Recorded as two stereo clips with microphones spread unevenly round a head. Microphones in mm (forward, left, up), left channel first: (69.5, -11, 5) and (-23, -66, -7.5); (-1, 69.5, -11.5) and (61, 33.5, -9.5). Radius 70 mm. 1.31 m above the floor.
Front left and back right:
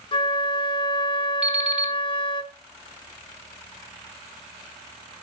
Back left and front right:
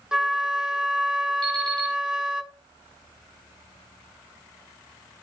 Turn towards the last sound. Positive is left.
turn(degrees=-65)